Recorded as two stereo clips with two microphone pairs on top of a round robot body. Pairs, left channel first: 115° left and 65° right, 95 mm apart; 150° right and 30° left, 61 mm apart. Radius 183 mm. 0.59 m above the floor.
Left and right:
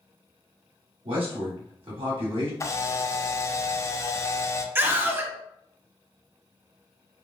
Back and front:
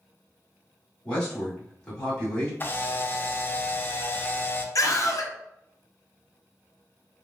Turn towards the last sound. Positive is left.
turn(degrees=-135)